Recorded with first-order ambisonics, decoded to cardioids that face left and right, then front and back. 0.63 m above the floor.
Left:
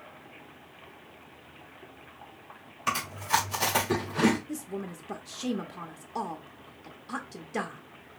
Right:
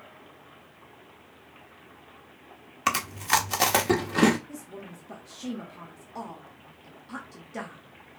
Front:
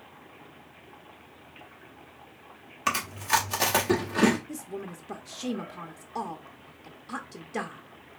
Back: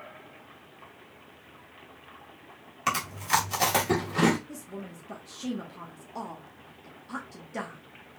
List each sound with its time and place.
2.9 s chewing: 85° right, 1.3 m
4.5 s a woman speaking: 55° left, 0.6 m